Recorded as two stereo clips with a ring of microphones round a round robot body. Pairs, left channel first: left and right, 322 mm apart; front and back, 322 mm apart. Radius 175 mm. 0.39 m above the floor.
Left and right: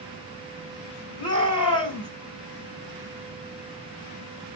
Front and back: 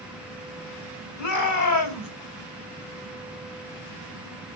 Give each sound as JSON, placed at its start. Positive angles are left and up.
{"t": 1.2, "sound": "a shout", "azimuth_deg": -25, "distance_m": 3.5}